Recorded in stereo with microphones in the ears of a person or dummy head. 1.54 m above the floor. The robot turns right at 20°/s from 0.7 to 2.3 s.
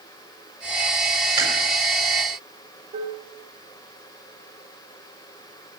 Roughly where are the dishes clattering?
Right.